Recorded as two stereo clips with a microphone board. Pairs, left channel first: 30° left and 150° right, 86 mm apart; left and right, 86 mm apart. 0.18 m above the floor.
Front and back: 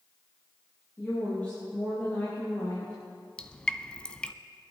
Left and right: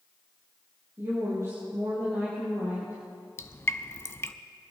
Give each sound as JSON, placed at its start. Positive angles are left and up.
{"t": 1.0, "sound": "a woman speaking", "azimuth_deg": -40, "distance_m": 4.5}
{"t": 3.4, "sound": "dripping", "azimuth_deg": 95, "distance_m": 0.6}